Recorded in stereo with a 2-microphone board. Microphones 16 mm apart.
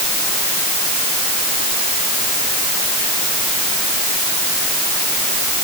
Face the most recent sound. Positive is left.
No sound to turn to.